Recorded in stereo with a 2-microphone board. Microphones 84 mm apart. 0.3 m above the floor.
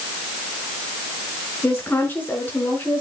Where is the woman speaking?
25° left (ahead or behind), 4 m.